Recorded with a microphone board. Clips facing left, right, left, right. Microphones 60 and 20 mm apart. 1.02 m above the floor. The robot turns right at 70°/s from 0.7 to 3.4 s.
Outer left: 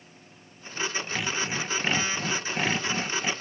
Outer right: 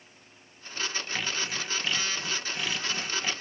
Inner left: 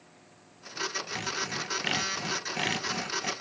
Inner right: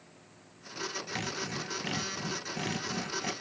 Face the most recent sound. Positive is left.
turn(degrees=165)